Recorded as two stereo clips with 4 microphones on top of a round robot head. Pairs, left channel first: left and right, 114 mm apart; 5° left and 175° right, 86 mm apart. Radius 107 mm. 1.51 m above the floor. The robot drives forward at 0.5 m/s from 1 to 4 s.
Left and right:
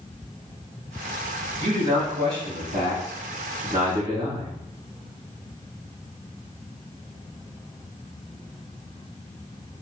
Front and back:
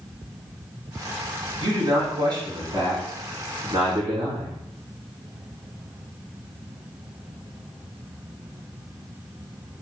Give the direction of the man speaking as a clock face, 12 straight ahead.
4 o'clock.